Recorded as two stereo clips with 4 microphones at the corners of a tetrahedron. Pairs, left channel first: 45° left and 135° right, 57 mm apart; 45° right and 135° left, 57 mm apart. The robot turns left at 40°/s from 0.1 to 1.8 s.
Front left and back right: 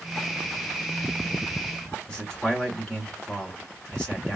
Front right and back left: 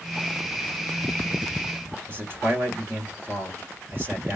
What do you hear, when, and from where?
2.1 s a man speaking: 110° left, 2.5 m